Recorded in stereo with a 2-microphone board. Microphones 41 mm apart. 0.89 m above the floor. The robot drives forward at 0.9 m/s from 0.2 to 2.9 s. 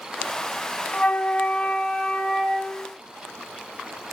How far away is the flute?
About 0.8 m.